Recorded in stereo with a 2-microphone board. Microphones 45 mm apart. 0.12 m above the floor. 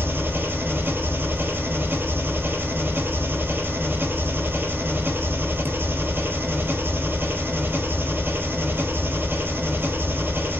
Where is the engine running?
55° right (ahead or behind), 0.9 m.